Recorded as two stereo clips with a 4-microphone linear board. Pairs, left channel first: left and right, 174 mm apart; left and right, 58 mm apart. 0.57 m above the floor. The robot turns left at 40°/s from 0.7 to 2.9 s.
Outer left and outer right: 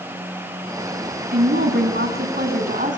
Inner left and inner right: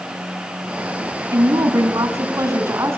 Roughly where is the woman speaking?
Right.